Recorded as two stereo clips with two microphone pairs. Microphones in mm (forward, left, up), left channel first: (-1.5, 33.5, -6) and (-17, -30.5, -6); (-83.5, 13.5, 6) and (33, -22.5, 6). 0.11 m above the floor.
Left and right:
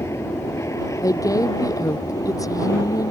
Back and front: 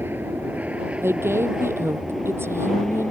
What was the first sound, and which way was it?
An aircraft, 50° left.